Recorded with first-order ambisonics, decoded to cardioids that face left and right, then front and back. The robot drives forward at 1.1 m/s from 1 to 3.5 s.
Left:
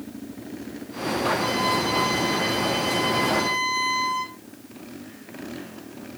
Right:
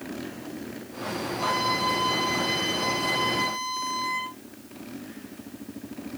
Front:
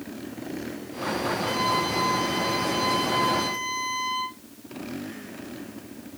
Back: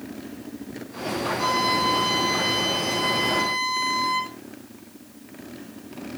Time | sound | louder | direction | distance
1.4 | a violin | left 2 dB, back 5 dB | 175° right | 5 m